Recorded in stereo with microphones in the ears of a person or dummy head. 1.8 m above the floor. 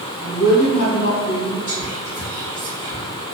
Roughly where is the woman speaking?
Left.